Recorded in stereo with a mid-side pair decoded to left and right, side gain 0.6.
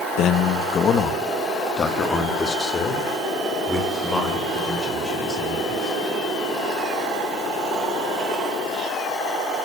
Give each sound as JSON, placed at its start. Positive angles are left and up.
{"t": 0.2, "sound": "a man speaking", "azimuth_deg": 60, "distance_m": 1.7}